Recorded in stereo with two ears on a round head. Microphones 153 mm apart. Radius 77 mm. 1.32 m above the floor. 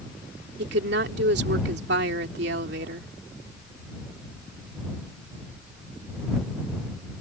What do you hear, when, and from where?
0.6 s a woman speaking: 70° right (ahead or behind)